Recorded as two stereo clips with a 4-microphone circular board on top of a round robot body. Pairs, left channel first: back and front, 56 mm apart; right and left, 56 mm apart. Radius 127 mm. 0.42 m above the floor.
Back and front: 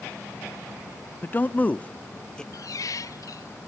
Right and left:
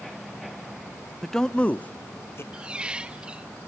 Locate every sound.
1.2 s a man speaking: 175° right, 0.8 m; by 2.4 s 105° right, 1.0 m
2.5 s a squeak: 160° left, 0.8 m